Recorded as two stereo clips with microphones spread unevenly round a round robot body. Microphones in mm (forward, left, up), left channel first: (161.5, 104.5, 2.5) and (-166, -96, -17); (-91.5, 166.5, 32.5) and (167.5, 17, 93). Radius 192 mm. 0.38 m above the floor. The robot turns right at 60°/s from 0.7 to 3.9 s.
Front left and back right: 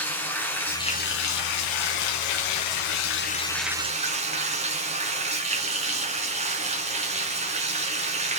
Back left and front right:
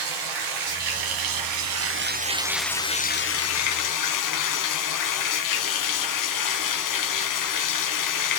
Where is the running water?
55° right, 1.4 m; by 8.4 s 140° left, 1.4 m.